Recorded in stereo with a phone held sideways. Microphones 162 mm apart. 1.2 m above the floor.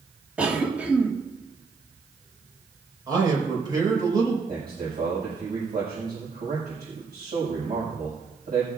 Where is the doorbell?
I don't hear a doorbell.